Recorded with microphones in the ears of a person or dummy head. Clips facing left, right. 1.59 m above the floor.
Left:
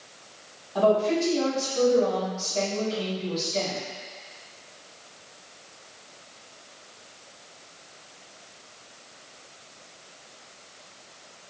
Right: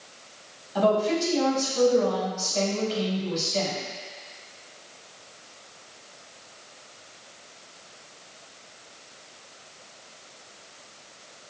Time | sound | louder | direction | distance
0.8 | a woman speaking | left 1 dB | 20° right (ahead or behind) | 2.0 m